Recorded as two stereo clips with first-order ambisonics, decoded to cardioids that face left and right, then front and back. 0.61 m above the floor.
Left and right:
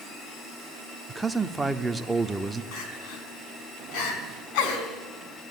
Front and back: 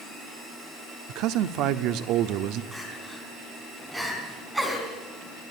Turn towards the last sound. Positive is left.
turn(degrees=95)